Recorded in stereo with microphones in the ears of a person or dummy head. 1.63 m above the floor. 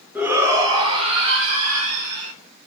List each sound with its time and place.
0.1 s a shout: 5° right (ahead or behind), 0.7 m; by 2.3 s 40° right (ahead or behind), 1.5 m